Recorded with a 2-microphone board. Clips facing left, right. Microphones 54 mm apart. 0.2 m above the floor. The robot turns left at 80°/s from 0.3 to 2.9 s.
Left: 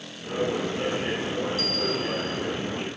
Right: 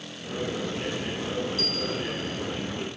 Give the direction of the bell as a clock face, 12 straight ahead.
12 o'clock.